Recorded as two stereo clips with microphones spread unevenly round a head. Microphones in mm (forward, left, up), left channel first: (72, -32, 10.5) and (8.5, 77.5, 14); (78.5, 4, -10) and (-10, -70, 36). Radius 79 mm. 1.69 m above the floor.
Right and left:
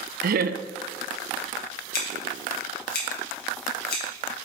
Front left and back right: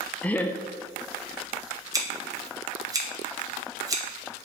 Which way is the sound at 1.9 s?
90° right.